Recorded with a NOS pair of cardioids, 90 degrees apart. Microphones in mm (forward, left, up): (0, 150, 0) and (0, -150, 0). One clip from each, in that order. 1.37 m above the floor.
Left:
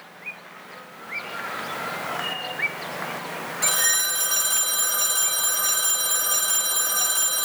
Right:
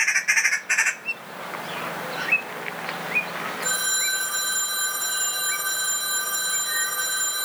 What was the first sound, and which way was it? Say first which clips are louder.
A phone ringing: left 3 dB; 55° left.